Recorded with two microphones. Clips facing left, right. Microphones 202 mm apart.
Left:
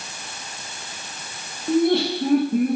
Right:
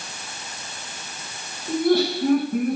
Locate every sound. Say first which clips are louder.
1.7 s laughter: left 1 dB; 25° left (ahead or behind), 3.5 m; by 2.8 s 30° left (ahead or behind), 4 m